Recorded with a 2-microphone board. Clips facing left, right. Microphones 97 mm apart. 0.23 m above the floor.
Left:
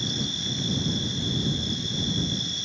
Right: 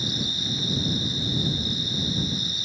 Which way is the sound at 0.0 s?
5° right (ahead or behind).